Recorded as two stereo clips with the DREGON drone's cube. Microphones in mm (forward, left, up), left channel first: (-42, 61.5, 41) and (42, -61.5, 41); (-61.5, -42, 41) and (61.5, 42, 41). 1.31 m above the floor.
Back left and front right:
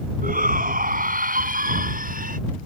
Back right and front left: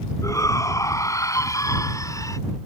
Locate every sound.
0.2 s a shout: 75° right; by 2.4 s 80° right